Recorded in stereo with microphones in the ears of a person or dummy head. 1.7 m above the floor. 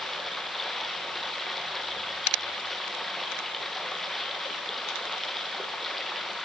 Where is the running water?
Centre (ahead or behind), 1.7 m.